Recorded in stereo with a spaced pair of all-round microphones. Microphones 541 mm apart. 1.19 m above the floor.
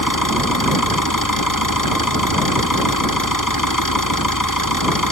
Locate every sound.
0.0 s an engine running: 35° left (ahead or behind)